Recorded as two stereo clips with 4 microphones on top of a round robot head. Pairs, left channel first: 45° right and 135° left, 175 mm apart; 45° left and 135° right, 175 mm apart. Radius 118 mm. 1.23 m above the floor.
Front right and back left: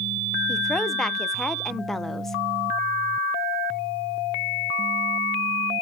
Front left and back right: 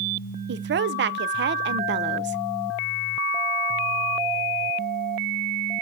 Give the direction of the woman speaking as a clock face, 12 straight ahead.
4 o'clock.